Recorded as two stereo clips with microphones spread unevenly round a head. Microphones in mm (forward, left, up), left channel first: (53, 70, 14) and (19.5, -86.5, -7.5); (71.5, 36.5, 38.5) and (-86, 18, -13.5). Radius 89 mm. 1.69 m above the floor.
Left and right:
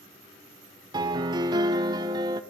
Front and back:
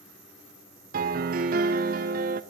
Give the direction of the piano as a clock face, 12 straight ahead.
5 o'clock.